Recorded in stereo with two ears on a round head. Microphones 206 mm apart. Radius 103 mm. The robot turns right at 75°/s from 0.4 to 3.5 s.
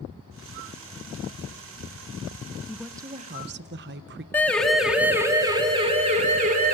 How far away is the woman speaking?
About 0.8 m.